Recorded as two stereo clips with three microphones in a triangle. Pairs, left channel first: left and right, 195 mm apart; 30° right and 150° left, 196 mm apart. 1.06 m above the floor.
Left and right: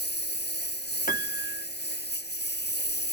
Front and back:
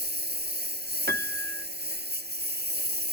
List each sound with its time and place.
0.0 s a lawn mower: 120° left
1.1 s a piano: 125° left